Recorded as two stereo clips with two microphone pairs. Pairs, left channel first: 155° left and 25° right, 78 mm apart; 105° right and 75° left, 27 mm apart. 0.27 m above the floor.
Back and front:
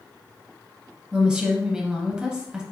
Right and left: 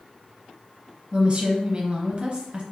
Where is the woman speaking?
50° left, 1.2 m.